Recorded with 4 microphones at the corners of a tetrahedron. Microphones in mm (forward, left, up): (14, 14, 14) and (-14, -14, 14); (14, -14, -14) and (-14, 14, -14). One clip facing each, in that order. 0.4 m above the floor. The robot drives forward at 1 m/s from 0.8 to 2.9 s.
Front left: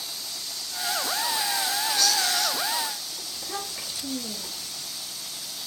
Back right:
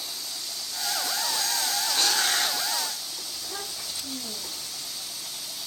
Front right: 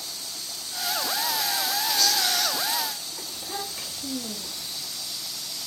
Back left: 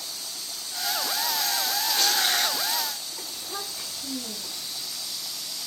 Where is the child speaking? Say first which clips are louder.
Front left 5 dB, front right 3 dB; 10° left, 5 m.